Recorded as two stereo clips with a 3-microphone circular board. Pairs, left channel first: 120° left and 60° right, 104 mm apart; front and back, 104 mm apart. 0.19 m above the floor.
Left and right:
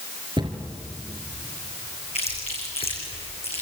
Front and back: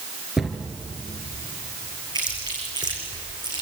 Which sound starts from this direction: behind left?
Chewing, at 2.1 s.